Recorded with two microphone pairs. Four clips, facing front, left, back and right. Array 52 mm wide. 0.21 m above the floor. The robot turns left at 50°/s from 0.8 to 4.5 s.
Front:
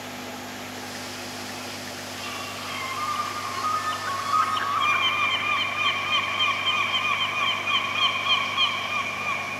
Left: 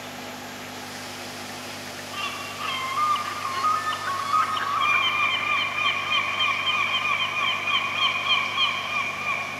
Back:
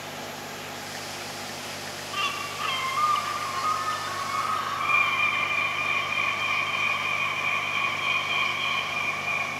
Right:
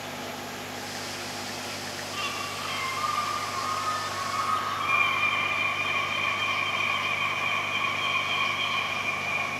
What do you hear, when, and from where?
2.1 s a bird: 170° left, 3 m; by 9.4 s 50° left, 3 m